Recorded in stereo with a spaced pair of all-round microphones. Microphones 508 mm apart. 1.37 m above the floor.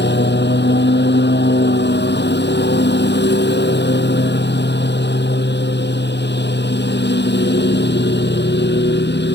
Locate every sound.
0.0 s a lawn mower: 20° left (ahead or behind)